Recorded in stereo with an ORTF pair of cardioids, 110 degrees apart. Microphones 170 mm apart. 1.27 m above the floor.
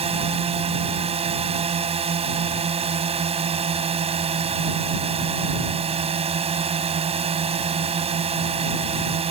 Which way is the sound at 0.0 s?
35° right.